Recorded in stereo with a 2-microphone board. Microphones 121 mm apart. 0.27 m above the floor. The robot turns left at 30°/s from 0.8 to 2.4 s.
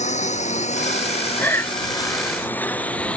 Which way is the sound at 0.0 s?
85° left.